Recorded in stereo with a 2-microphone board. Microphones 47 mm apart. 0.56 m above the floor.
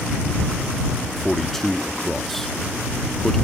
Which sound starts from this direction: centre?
A man speaking, at 1.2 s.